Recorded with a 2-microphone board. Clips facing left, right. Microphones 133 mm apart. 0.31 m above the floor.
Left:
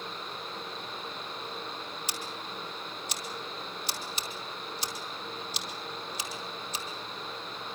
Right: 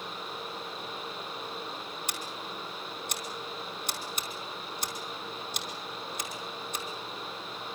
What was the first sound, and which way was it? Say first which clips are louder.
Scissors: even; 55° right (ahead or behind).